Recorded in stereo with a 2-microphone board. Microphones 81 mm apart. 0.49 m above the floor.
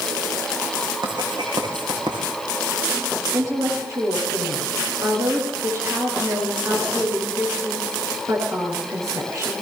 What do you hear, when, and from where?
1.0 s writing: 70° right (ahead or behind), 7 m
3.3 s a woman speaking: 40° right (ahead or behind), 9 m